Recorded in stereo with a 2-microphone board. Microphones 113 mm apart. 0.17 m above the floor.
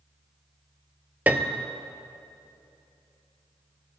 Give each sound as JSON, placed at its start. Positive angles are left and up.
{"t": 1.3, "sound": "a piano", "side_deg": -15, "distance_m": 0.6}